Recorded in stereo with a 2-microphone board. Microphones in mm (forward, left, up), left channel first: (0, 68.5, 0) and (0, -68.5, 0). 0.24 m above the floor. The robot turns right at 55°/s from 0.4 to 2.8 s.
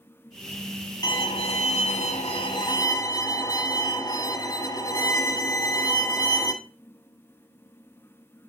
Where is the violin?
45° left, 1.3 m; by 6.5 s 140° left, 1.3 m.